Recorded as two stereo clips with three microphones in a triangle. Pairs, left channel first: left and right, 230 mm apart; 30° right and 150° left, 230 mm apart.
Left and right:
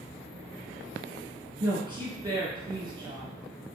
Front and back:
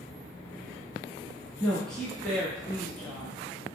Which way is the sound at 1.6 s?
110° right.